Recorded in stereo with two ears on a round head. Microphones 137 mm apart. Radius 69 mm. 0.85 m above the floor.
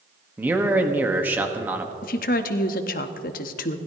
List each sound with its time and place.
0.4 s a man speaking: 10° right (ahead or behind), 1.2 m
2.0 s a woman speaking: 65° left (ahead or behind), 1.0 m